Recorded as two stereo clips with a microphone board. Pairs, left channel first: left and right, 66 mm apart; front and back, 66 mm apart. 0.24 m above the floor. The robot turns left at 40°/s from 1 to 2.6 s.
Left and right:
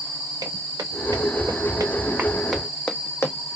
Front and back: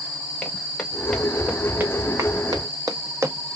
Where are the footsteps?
75° right, 1.5 m; by 3.5 s 115° left, 0.5 m.